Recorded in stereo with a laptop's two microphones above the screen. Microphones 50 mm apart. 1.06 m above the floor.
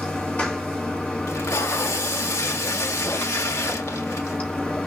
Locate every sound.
0.0 s running water: 35° left (ahead or behind), 2.5 m
1.3 s tape being pulled: 70° left (ahead or behind), 1.5 m